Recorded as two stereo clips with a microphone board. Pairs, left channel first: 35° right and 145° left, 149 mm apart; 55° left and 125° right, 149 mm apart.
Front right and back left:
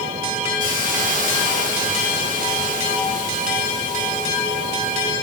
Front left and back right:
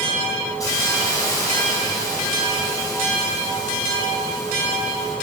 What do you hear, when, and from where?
0.6 s a hiss: 120° left, 3.5 m